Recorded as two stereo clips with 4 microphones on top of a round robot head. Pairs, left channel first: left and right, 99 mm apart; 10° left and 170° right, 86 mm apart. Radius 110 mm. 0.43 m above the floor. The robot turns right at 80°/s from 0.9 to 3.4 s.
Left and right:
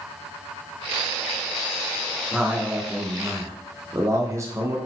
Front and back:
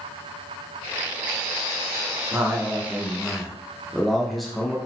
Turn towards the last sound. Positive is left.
turn(degrees=-80)